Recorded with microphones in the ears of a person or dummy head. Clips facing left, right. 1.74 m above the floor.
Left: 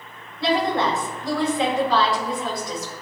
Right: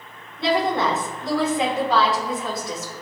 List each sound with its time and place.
0.4 s a woman speaking: 25° right (ahead or behind), 5 m